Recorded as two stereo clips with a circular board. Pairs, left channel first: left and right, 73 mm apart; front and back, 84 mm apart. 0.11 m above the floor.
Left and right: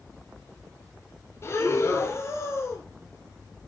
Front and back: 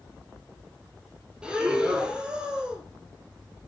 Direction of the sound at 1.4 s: 105° left.